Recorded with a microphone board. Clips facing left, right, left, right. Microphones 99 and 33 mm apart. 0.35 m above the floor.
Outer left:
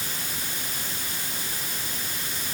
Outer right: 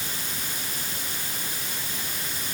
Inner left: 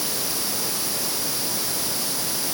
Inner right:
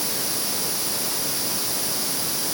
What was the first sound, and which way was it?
Only background noise.